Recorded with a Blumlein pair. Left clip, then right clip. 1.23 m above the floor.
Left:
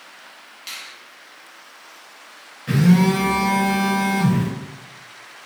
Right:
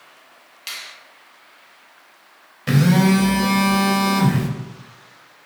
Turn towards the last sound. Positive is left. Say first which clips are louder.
# right 1 dB
turn(degrees=-35)